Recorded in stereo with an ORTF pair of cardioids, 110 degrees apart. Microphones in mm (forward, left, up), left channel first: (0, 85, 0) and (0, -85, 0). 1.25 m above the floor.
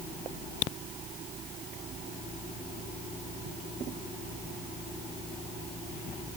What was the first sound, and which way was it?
Only background noise.